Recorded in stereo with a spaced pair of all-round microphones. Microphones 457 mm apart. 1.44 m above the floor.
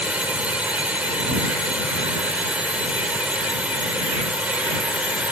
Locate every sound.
0.0 s a drone: centre (ahead or behind)